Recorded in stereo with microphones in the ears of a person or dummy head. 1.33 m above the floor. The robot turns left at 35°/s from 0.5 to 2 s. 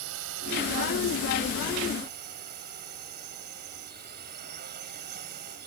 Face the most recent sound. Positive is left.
turn(degrees=-130)